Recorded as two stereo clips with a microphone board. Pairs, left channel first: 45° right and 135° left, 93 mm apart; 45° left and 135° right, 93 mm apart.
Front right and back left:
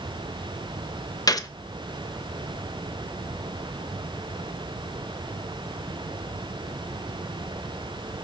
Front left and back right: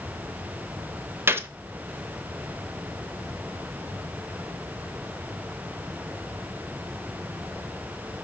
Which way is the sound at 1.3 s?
75° right.